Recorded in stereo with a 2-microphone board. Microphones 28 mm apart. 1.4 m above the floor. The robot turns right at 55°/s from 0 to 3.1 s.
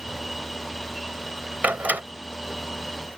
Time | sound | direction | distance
1.6 | a door slam | 80° right | ?